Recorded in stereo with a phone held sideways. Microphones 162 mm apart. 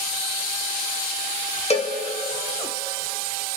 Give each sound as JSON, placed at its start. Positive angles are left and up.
{"t": 1.7, "sound": "a cowbell", "side_deg": 40, "distance_m": 1.4}